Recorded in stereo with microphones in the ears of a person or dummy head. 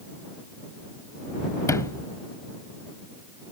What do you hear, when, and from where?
1.7 s a sliding door: 25° left (ahead or behind)